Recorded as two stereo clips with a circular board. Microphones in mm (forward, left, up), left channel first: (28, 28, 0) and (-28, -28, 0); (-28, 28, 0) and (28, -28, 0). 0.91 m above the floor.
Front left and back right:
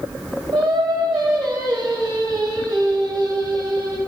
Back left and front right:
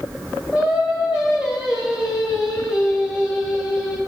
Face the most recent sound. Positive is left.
turn(degrees=-125)